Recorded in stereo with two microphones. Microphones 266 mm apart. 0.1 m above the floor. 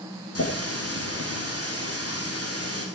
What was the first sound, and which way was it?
A running tap, 65° left (ahead or behind).